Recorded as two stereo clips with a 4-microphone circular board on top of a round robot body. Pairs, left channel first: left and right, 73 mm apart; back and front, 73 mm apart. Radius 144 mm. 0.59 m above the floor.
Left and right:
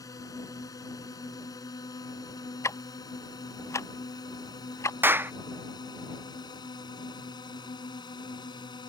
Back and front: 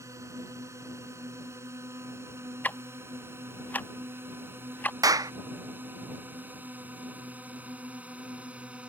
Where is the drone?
50° left; by 8.9 s 75° left.